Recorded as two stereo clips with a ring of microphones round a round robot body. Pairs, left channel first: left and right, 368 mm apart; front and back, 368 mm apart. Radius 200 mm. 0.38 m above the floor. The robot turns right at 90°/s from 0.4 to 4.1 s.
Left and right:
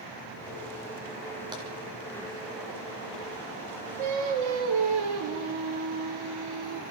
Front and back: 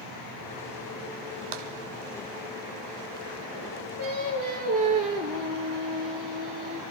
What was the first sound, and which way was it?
Tapping, 170° right.